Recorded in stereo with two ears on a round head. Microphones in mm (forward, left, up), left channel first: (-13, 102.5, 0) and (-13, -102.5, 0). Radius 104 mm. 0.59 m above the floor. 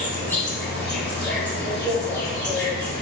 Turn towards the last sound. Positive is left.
turn(degrees=5)  # may be behind; listen again after turning